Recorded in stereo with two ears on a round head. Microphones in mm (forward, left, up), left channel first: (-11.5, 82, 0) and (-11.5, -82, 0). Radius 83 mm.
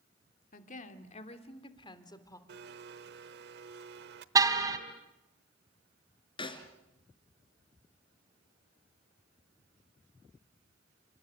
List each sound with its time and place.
0.5 s a woman speaking: 50° left (ahead or behind), 2.5 m; by 2.4 s 20° left (ahead or behind), 3 m
2.5 s a blender: 60° right (ahead or behind), 1.1 m
4.3 s a car horn: 20° right (ahead or behind), 2 m
6.4 s a snare drum: 30° left (ahead or behind), 3 m